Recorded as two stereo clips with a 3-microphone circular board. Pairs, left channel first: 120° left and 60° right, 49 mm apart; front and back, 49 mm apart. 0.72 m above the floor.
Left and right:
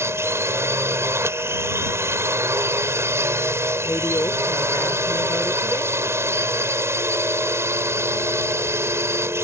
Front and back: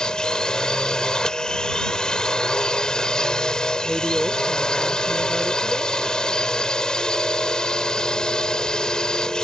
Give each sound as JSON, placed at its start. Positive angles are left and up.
{"t": 0.0, "sound": "a drone", "azimuth_deg": -75}
{"t": 3.8, "sound": "a woman speaking", "azimuth_deg": 95}